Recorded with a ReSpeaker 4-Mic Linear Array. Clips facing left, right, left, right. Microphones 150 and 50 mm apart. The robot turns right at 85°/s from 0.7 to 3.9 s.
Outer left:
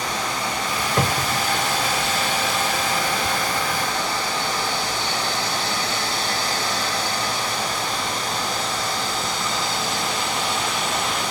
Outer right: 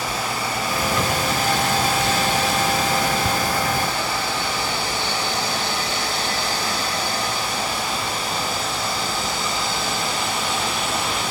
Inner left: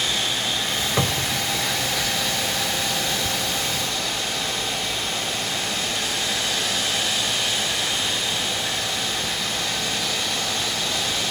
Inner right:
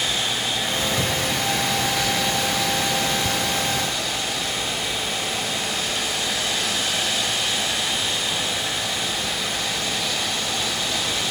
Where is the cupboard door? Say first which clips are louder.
Even, even; 110° left, 1.3 m; by 1.4 s 150° left, 1.3 m.